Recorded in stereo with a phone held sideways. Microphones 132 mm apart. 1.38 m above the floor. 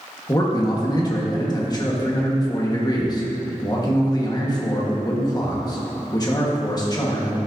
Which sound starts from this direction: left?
A man speaking, at 0.3 s.